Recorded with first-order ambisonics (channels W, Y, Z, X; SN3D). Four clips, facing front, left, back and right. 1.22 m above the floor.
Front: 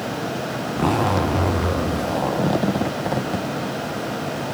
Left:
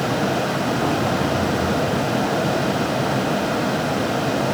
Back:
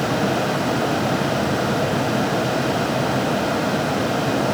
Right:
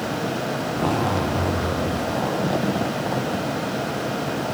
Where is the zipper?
10° right, 0.9 m.